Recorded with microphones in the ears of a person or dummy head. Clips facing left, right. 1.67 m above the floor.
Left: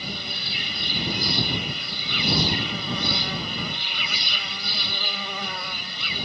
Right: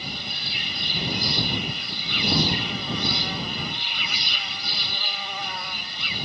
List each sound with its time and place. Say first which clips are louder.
0.0 s an insect: left 1 dB; 80° left